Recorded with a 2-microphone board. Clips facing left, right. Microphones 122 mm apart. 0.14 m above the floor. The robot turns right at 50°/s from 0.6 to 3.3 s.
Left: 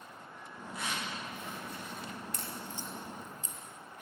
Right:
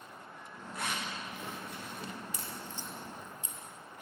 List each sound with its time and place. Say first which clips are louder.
0.7 s a zipper: right 1 dB; 55° right (ahead or behind), 9.5 m
2.3 s a crack: left 1 dB; 5° right (ahead or behind), 3.5 m; by 3.6 s 35° left (ahead or behind), 3.5 m